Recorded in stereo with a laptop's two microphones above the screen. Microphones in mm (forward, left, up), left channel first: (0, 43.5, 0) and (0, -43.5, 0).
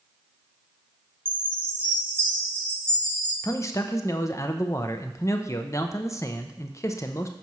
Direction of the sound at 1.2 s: 25° right (ahead or behind).